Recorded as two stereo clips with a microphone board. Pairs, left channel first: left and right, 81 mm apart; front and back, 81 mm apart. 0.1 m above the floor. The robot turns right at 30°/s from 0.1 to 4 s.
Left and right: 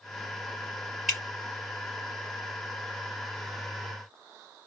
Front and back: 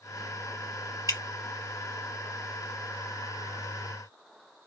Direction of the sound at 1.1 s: Straight ahead.